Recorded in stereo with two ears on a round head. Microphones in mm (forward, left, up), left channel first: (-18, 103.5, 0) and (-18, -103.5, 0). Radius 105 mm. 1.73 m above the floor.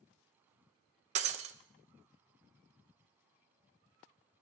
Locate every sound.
1.1 s breaking glass: 30° right (ahead or behind), 0.9 m